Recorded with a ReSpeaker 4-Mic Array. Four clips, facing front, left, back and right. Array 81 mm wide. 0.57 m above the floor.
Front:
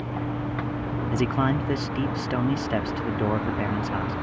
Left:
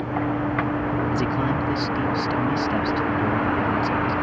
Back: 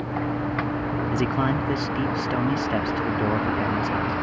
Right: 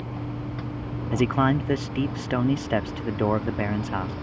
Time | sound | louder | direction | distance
0.0 | a vehicle | left 10 dB, back 3 dB | 110° left | ?
1.1 | a man speaking | right 1 dB, front 1 dB | 85° right | ?